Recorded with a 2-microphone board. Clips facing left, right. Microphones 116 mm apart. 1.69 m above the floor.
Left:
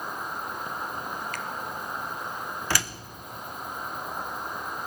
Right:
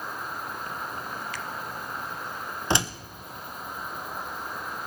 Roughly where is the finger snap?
Left.